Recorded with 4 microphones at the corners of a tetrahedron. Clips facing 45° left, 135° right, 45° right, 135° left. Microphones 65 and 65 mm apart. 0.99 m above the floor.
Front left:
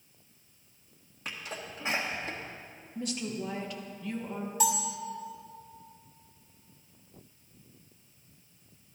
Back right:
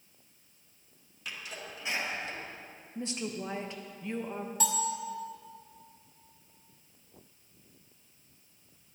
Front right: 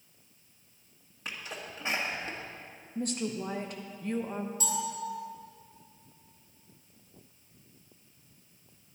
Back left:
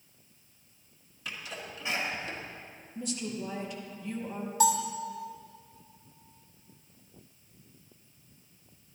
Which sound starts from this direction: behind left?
A bell, at 4.6 s.